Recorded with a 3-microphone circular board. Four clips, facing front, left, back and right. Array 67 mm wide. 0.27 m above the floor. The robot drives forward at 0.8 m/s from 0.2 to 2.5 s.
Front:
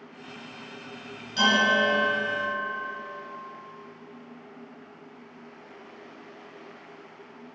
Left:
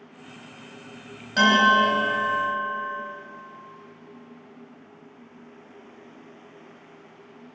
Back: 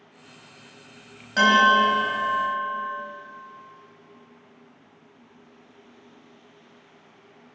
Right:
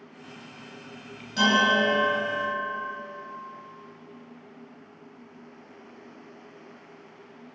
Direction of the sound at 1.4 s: 145° left.